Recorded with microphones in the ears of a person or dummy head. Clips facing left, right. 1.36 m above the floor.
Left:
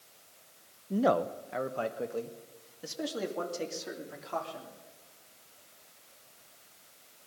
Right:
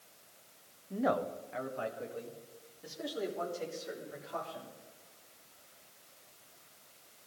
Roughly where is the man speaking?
Left.